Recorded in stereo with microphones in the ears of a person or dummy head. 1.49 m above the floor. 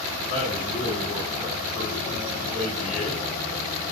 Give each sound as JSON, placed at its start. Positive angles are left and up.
{"t": 0.3, "sound": "a man speaking", "side_deg": 55, "distance_m": 5.0}